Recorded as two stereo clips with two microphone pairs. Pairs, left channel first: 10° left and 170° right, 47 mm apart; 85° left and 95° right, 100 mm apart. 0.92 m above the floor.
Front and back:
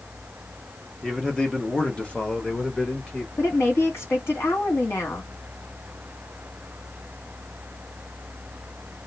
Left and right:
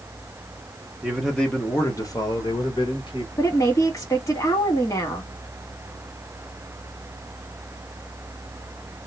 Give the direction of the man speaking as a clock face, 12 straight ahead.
2 o'clock.